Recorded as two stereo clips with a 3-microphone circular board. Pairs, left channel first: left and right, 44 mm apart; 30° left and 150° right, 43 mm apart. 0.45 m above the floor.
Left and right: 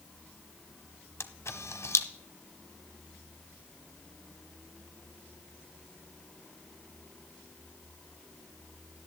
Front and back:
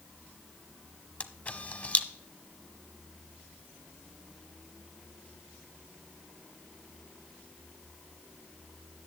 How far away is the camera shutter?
About 0.6 m.